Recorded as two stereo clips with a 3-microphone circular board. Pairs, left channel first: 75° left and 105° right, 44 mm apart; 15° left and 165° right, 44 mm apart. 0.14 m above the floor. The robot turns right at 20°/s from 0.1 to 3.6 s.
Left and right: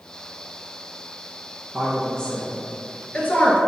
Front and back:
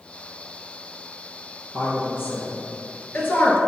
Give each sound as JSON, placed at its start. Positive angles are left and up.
{"t": 1.7, "sound": "a woman speaking", "azimuth_deg": 0, "distance_m": 1.8}